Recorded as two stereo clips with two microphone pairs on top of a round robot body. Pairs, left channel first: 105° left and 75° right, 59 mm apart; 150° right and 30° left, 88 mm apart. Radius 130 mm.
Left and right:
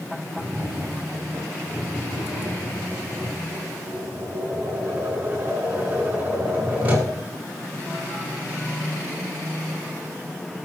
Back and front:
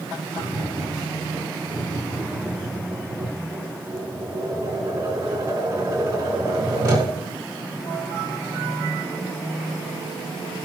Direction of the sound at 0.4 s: 10° right.